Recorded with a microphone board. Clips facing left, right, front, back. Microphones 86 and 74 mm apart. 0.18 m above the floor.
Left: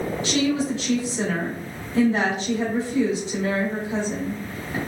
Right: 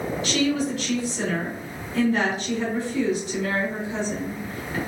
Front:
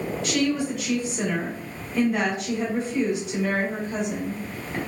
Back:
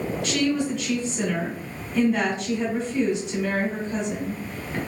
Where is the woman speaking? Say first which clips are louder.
Left 1 dB, even; 80° left, 1.3 m.